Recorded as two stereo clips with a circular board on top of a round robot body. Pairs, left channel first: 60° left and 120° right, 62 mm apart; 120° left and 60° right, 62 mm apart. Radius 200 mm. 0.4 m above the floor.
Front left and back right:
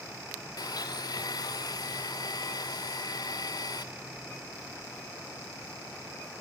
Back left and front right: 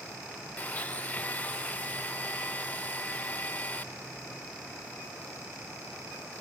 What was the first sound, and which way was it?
A blender, 55° left.